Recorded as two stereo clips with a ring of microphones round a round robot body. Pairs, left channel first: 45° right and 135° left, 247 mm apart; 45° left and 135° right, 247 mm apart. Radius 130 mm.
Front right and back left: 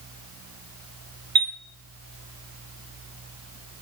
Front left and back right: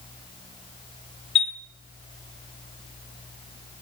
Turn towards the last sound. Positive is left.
turn(degrees=105)